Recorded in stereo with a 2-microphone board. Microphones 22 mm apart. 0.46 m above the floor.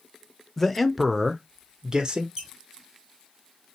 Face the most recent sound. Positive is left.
turn(degrees=-30)  # may be behind; listen again after turning